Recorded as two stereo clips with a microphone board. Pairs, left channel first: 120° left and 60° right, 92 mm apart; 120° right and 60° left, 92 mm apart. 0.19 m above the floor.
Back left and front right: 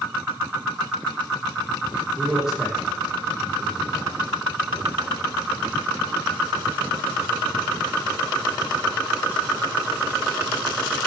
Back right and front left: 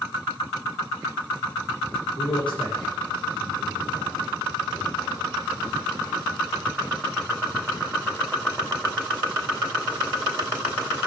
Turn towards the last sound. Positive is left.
turn(degrees=-140)